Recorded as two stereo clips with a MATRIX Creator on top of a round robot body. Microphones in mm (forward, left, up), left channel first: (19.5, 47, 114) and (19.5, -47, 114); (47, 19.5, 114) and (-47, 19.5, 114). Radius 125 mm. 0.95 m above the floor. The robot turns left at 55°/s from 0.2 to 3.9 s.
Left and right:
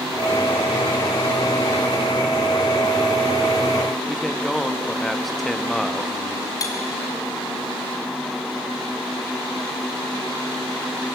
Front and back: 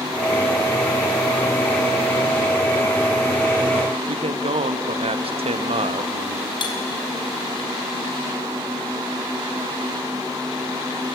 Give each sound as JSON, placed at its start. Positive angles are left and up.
{"t": 4.1, "sound": "a man speaking", "azimuth_deg": 180, "distance_m": 1.3}
{"t": 6.6, "sound": "cutlery clinking", "azimuth_deg": 35, "distance_m": 3.0}